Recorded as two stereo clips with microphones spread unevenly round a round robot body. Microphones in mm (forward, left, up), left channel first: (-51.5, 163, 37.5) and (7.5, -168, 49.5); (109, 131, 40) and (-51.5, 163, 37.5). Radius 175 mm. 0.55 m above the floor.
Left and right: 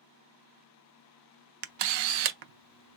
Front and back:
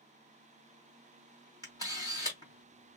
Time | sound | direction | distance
1.6 | a camera shutter | 85° right | 0.6 m